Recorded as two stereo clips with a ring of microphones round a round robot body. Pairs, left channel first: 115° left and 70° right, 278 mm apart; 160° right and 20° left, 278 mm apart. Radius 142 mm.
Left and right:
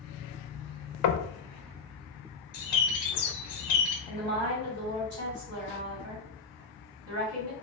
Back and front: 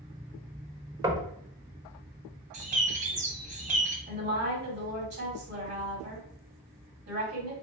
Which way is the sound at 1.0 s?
100° left.